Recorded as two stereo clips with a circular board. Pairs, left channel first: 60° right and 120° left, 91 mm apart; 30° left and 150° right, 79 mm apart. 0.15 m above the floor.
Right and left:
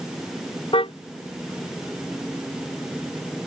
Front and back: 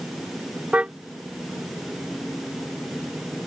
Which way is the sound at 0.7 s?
75° right.